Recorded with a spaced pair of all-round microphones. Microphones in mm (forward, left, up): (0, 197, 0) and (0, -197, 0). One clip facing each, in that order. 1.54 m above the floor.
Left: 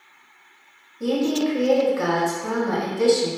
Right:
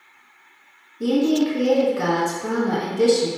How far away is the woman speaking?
About 0.7 m.